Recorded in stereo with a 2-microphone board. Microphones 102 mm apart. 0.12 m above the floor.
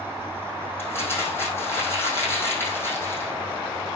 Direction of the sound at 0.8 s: 25° left (ahead or behind).